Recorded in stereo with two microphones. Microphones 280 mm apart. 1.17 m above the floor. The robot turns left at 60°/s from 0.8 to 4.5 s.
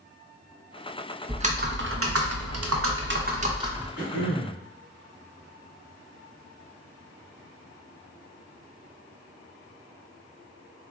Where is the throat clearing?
80° left, 1.7 m; by 4.6 s 50° left, 1.7 m.